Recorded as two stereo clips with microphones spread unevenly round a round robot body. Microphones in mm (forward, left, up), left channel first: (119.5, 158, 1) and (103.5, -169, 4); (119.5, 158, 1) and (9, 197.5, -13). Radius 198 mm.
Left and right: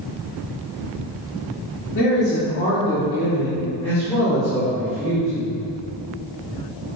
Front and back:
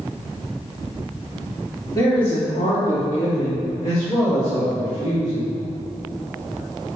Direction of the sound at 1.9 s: 35° left.